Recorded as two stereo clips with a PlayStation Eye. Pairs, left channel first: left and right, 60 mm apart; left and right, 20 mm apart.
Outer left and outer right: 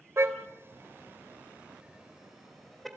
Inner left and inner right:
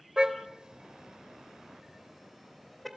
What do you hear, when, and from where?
0.2 s a car horn: 50° right (ahead or behind), 2.5 m; by 2.9 s 5° left (ahead or behind), 3 m